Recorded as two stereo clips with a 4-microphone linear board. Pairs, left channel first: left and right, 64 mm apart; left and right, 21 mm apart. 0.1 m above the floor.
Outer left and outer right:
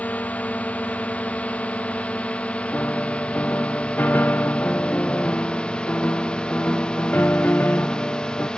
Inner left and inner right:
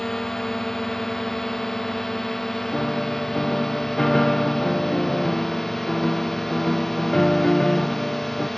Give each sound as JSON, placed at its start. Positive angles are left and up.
{"t": 0.0, "sound": "a drone", "side_deg": 25}
{"t": 2.7, "sound": "a piano", "side_deg": 30}